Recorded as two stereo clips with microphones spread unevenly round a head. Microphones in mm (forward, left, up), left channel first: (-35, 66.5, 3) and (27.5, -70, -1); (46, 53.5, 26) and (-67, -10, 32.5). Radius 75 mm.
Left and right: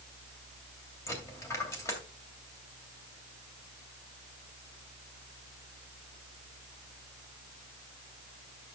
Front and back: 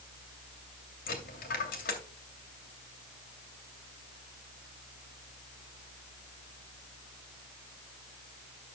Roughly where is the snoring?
I don't hear snoring.